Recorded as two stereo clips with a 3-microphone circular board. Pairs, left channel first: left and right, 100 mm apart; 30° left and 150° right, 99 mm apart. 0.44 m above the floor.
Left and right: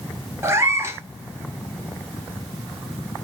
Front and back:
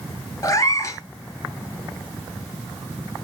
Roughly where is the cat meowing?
Ahead right.